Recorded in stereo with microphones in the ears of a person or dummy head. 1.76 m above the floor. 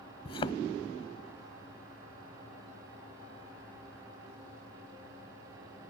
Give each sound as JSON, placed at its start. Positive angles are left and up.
{"t": 0.2, "sound": "a thud", "side_deg": 25}